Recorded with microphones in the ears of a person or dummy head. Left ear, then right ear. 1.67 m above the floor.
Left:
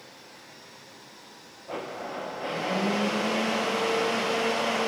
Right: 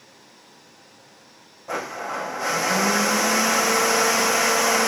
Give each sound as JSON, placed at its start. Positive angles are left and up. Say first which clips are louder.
{"t": 1.7, "sound": "a blender", "louder": "right 6 dB", "side_deg": -50, "distance_m": 1.1}